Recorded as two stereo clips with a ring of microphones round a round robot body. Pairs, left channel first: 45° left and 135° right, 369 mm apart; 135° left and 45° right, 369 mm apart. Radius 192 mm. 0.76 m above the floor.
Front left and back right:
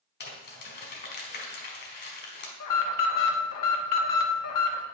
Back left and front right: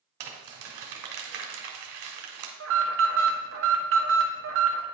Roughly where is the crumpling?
Ahead.